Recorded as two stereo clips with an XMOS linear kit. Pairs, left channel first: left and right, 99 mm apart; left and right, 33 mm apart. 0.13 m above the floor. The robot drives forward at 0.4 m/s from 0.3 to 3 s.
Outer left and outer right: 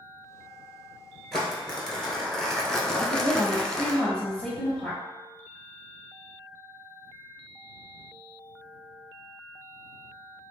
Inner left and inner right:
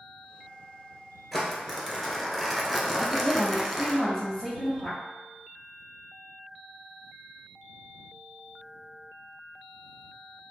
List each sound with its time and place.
1.3 s crumpling: 5° left (ahead or behind), 1.1 m
3.0 s a woman speaking: 5° left (ahead or behind), 1.8 m